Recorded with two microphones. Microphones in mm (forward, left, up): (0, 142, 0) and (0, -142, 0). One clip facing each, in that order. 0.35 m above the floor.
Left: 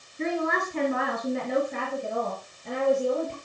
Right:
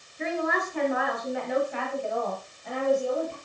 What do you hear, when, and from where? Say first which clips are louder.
0.2 s a woman speaking: left 1 dB; 35° left (ahead or behind), 5 m; by 3.3 s 25° left (ahead or behind), 7.5 m